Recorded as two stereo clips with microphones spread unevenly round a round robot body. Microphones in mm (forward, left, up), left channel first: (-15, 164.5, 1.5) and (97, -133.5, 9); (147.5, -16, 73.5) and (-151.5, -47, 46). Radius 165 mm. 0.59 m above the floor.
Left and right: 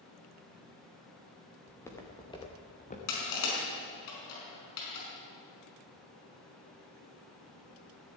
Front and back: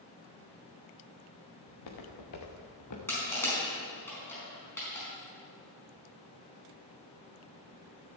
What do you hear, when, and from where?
1.7 s footsteps: 25° left, 4 m; by 3.0 s 45° left, 3.5 m
3.1 s crushing: 90° left, 5 m